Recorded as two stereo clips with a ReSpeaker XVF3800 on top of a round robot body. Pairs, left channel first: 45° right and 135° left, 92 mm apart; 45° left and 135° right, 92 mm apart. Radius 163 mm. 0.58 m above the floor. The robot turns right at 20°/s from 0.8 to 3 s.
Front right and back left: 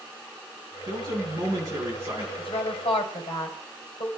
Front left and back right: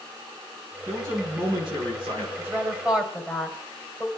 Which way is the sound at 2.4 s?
70° right.